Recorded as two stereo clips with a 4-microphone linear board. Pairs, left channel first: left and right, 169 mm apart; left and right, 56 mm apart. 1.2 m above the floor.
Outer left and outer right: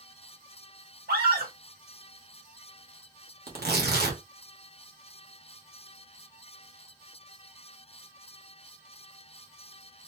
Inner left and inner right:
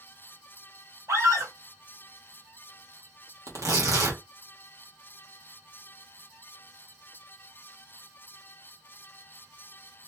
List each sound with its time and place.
1.1 s a scream: 70° right (ahead or behind), 1.9 m
3.5 s tearing paper: 75° right (ahead or behind), 1.4 m